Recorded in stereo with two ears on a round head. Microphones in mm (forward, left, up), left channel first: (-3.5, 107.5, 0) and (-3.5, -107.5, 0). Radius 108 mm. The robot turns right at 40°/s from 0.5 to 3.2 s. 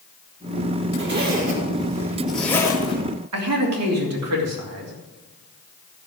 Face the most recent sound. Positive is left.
turn(degrees=-75)  # may be behind; listen again after turning